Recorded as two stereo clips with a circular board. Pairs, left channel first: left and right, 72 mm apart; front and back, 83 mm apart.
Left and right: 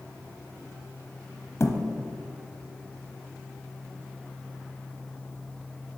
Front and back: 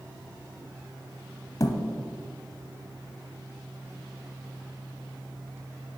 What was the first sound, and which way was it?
A thud, 40° left.